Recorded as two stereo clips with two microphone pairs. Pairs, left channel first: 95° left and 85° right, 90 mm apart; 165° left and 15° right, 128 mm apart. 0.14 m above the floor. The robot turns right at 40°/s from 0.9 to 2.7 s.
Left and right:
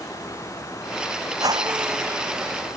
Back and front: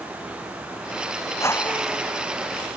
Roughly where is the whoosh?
Behind right.